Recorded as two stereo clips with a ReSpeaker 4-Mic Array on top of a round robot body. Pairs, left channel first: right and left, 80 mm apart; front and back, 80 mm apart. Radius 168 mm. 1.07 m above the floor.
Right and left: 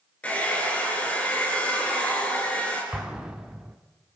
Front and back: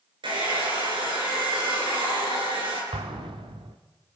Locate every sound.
0.2 s a hair dryer: 165° right, 7.5 m
2.9 s an explosion: 170° left, 1.0 m